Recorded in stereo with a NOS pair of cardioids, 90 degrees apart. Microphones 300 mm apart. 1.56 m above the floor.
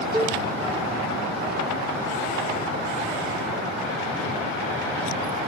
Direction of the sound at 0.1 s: 15° right.